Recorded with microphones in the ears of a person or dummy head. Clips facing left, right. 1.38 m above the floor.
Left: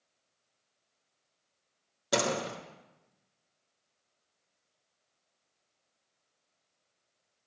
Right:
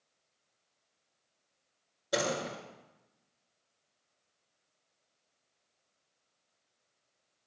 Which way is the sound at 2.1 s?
80° left.